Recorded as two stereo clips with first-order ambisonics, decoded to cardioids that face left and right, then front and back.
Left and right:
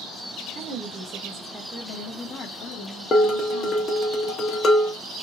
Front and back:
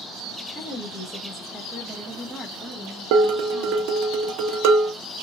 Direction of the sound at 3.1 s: 155° left.